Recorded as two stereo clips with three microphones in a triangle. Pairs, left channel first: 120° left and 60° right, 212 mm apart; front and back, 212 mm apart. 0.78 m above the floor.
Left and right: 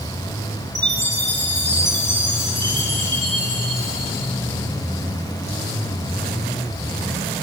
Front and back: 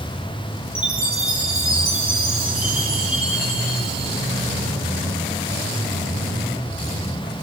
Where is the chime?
95° right, 6 m.